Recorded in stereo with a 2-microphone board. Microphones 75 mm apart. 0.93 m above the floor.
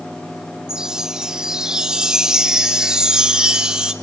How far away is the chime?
About 0.9 m.